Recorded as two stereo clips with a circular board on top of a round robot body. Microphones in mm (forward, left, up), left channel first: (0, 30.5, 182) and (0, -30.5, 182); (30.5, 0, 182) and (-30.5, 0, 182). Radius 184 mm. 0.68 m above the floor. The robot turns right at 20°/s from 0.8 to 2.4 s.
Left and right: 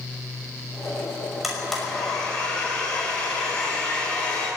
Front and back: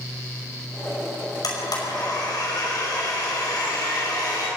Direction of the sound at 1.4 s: 5° right.